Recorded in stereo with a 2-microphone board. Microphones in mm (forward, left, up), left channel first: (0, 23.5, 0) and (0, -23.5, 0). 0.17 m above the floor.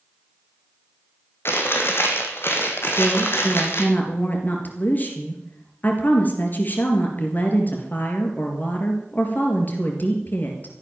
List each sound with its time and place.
1.4 s chewing: 60° left (ahead or behind), 3 m
2.8 s a woman speaking: 40° left (ahead or behind), 4 m